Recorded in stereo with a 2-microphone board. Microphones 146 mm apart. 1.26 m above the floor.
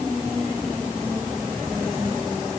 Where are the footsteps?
I don't hear footsteps.